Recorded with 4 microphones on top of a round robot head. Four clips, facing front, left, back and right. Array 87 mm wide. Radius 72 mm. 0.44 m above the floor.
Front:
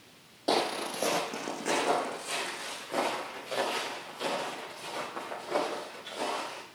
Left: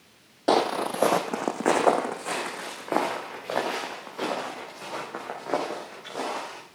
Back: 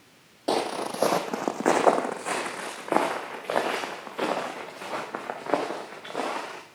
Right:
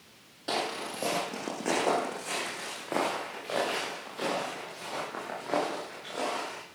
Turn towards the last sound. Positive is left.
turn(degrees=165)